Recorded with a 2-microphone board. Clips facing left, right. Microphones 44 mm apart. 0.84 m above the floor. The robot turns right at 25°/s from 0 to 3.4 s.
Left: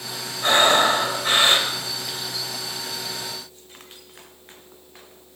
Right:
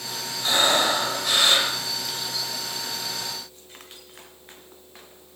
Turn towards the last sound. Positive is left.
turn(degrees=-155)